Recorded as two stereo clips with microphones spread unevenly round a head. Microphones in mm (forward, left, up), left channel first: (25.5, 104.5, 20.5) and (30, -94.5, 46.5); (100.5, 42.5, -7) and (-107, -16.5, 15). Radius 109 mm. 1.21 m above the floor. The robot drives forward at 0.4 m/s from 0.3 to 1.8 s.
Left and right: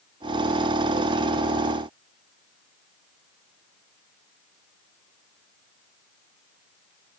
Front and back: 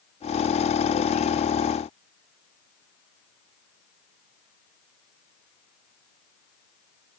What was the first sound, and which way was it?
Only background noise.